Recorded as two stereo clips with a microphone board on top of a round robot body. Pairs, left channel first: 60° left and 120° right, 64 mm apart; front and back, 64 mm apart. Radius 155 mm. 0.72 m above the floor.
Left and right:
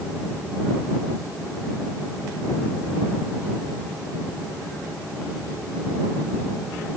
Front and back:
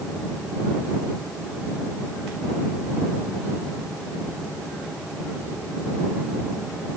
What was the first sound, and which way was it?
Only background noise.